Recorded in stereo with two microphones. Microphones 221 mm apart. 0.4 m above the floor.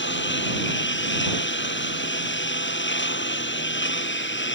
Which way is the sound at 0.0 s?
60° left (ahead or behind).